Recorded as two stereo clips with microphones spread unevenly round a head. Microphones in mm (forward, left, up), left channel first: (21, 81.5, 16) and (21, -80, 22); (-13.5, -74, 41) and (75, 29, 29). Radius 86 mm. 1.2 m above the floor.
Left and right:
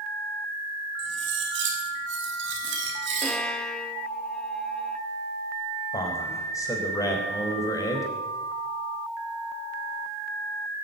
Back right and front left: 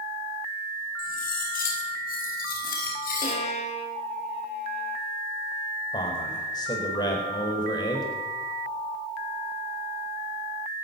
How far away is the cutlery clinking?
About 6 m.